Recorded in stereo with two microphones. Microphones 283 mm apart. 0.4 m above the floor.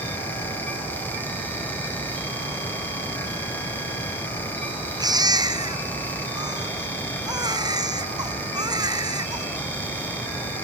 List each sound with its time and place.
5.0 s a baby crying: 15° right (ahead or behind)